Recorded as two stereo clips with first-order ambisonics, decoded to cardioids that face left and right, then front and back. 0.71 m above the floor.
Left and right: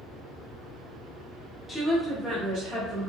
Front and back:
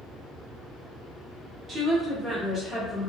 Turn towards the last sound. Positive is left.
turn(degrees=-85)